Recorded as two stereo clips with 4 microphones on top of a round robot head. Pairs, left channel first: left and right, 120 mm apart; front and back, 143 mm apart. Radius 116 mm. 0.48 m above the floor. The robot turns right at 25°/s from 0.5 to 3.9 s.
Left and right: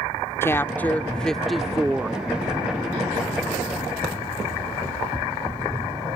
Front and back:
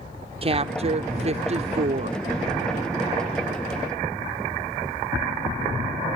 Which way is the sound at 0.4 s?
155° left.